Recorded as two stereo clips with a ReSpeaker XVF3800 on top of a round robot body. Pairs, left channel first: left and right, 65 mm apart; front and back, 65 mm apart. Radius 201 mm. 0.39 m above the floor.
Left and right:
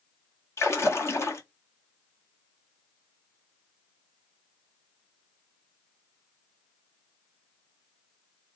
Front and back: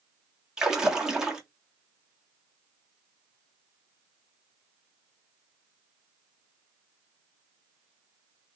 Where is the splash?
105° left, 1.8 m.